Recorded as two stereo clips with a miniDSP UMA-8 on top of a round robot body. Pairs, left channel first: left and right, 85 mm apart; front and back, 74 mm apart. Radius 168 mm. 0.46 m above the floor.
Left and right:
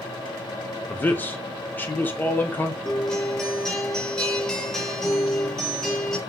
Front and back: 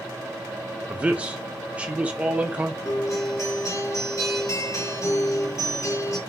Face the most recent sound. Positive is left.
turn(degrees=10)